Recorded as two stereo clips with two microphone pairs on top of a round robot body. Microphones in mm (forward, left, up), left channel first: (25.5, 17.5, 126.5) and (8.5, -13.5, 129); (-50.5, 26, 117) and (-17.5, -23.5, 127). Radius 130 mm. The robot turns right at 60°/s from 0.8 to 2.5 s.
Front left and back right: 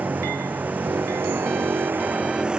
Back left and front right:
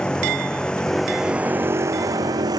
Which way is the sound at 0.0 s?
160° right.